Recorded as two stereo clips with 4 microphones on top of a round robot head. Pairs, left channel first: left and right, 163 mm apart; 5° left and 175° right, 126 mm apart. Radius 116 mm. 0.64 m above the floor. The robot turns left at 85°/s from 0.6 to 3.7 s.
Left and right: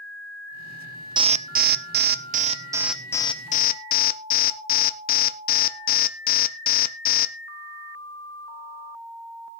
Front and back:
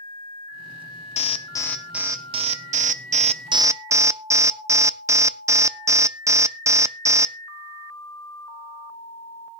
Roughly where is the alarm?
Ahead right.